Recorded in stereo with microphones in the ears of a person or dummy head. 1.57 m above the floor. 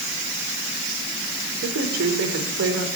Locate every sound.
1.6 s a woman speaking: 80° right, 5.5 m